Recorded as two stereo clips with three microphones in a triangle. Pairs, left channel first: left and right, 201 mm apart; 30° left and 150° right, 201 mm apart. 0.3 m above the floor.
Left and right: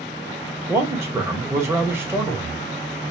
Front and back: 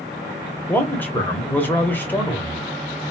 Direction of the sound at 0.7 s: 35° right.